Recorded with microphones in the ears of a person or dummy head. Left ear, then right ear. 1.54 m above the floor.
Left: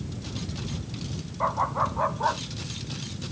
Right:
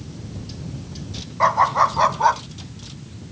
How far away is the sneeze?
I don't hear a sneeze.